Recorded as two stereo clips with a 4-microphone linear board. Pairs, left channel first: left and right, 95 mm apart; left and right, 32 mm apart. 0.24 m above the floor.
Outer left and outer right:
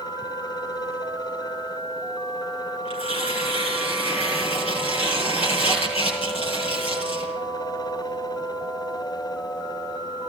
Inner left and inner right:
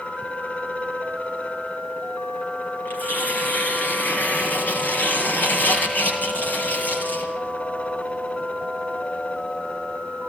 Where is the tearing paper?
70° left (ahead or behind), 7 m.